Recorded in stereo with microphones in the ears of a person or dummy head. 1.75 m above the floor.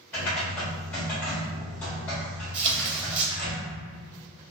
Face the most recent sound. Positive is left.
turn(degrees=-65)  # may be behind; listen again after turning